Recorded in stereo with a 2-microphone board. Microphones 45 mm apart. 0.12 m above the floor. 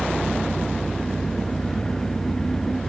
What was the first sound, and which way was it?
An engine running, 10° left (ahead or behind).